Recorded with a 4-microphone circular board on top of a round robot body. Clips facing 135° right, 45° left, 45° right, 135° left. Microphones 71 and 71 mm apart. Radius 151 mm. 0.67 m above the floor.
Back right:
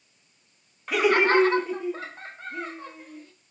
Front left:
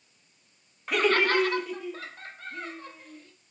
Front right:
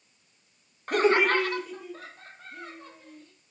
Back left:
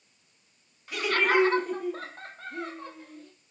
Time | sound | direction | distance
0.9 | laughter | 45° right | 0.6 m